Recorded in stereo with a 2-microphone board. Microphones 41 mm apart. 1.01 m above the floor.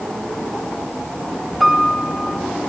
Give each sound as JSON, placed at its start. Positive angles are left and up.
{"t": 1.6, "sound": "a piano", "side_deg": 0, "distance_m": 1.6}